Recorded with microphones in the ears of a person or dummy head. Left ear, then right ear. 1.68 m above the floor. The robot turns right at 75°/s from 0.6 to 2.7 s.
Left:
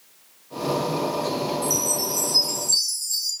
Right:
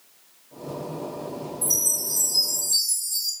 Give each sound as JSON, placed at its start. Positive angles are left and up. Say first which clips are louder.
{"t": 1.6, "sound": "a chime", "louder": "left 2 dB", "azimuth_deg": -50, "distance_m": 1.3}